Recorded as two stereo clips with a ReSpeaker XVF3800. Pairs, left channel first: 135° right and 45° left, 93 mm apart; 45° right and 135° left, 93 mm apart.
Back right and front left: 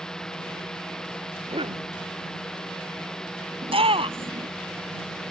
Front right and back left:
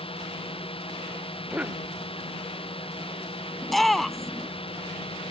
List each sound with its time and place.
0.0 s a drone: 50° right
1.5 s a cough: 60° left
3.6 s a shout: 45° left